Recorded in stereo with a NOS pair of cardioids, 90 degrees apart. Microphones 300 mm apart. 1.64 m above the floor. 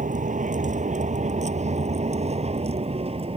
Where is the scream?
I don't hear a scream.